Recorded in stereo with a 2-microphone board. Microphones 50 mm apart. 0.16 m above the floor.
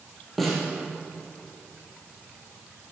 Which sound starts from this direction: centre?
A snare drum, at 0.4 s.